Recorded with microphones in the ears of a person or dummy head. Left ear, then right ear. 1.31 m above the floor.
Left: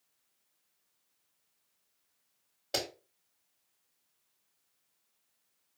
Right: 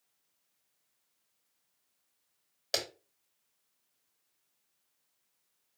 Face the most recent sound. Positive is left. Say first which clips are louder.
# right 1 dB
turn(degrees=-60)  # may be behind; listen again after turning